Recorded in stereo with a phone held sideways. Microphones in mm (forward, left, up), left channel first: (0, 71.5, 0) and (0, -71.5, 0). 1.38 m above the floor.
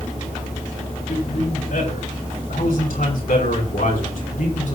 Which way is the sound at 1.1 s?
85° left.